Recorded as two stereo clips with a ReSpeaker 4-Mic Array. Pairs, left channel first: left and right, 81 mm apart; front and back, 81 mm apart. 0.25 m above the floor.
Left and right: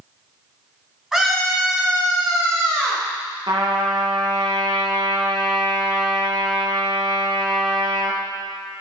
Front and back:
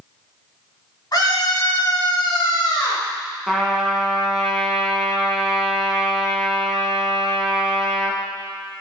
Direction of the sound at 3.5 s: 95° right.